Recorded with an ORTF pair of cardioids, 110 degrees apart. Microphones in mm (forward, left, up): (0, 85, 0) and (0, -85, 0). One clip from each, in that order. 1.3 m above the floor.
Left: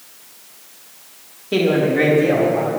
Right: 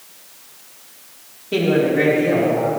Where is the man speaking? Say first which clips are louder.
Even; 15° left, 3 m; by 2.7 s 25° left, 4.5 m.